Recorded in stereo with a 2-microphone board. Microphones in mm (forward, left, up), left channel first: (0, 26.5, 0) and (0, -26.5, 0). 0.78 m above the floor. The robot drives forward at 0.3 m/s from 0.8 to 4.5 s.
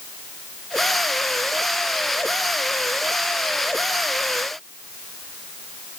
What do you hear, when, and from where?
Only background noise.